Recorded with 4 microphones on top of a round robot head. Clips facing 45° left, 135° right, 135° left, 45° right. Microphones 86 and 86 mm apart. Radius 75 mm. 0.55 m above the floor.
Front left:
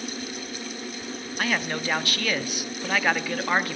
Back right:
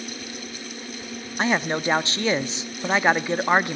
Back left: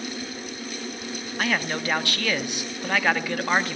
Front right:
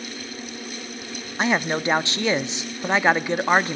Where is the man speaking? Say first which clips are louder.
Back right 5 dB, front right 4 dB; 90° right, 1.0 m.